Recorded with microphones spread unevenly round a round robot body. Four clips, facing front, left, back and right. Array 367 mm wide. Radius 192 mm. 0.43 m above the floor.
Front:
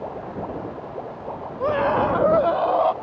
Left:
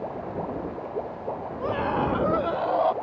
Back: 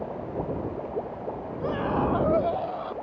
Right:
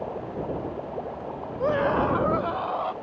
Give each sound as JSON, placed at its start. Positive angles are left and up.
{"t": 1.6, "sound": "a scream", "azimuth_deg": -35}